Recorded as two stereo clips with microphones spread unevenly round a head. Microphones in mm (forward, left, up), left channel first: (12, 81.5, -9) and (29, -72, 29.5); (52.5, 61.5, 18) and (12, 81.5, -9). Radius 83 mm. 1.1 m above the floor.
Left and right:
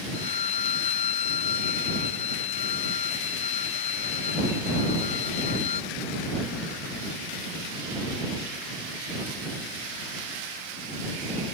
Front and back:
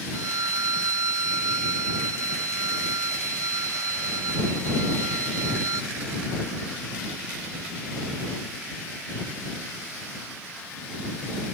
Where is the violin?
155° left.